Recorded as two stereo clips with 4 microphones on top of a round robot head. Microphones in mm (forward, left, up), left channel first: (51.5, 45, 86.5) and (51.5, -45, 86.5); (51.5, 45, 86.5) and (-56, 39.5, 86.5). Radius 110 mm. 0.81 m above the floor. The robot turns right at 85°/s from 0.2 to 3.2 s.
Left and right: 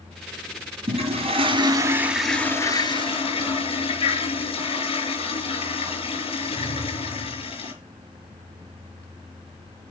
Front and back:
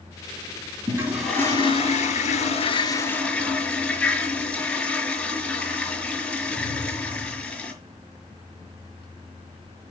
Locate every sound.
0.9 s a toilet flushing: 115° right, 5 m; by 7.7 s 80° left, 5 m